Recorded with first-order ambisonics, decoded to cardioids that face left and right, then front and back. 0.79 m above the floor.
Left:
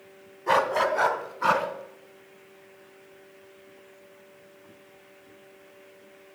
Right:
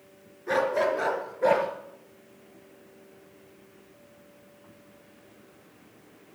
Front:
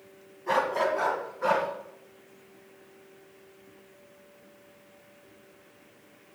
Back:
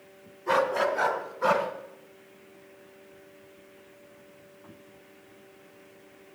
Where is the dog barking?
90° left, 1.6 m; by 1.7 s 100° left, 2.5 m.